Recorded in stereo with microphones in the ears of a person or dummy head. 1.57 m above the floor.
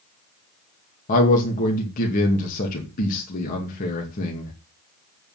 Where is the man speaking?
45° left (ahead or behind), 2 m.